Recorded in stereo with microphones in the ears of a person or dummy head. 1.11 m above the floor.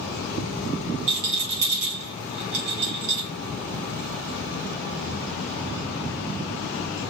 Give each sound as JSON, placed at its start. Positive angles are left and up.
{"t": 1.1, "sound": "a rattle", "side_deg": -35, "distance_m": 1.8}